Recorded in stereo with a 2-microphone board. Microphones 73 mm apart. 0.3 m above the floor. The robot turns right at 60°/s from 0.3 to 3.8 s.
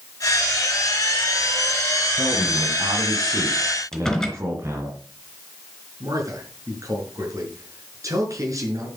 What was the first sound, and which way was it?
A man speaking, 140° right.